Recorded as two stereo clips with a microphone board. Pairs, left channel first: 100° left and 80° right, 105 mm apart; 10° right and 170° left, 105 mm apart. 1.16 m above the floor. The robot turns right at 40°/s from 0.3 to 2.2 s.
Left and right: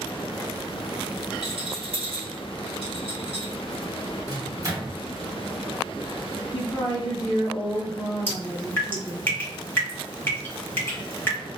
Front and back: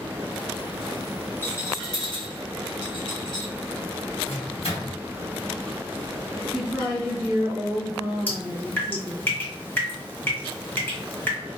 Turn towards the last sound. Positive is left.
turn(degrees=45)